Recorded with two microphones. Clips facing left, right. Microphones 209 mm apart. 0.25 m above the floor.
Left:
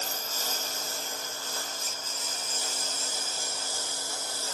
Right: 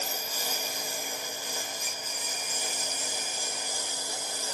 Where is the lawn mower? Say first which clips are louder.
Right 1 dB; 10° right (ahead or behind); by 4.5 s 15° right (ahead or behind).